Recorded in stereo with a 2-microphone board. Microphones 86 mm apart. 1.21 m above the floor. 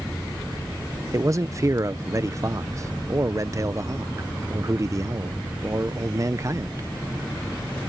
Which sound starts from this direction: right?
A man speaking, at 1.1 s.